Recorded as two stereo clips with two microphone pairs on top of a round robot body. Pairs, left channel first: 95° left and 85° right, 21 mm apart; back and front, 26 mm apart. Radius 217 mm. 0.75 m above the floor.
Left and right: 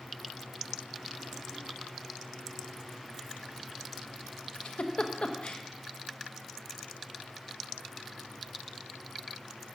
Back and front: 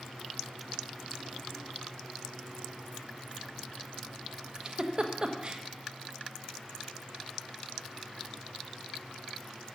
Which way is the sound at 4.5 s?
60° left.